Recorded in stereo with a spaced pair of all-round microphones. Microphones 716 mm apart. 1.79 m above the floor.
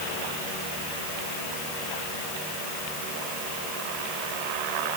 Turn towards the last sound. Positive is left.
No sound to turn to.